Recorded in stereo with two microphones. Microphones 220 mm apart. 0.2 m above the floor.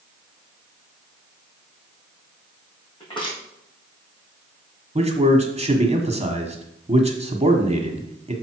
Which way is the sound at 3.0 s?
20° left (ahead or behind).